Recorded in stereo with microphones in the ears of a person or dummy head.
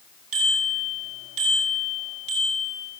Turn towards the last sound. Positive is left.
turn(degrees=-35)  # may be behind; listen again after turning